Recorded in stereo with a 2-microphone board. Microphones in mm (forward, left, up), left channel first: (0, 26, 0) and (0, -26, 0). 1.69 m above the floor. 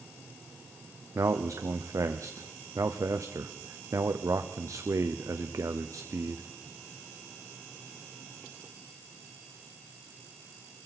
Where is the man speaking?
85° right, 0.7 m.